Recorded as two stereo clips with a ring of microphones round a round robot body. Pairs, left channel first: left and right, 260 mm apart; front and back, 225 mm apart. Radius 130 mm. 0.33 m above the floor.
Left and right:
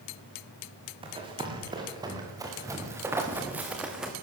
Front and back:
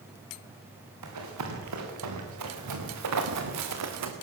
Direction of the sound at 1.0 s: 160° right.